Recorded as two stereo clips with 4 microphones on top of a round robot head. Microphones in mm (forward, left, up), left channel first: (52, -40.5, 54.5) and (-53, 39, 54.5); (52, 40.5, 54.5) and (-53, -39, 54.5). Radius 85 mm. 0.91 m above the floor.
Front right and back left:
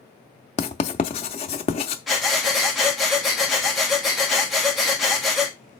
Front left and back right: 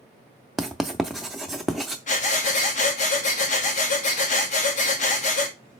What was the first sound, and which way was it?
Writing, 55° right.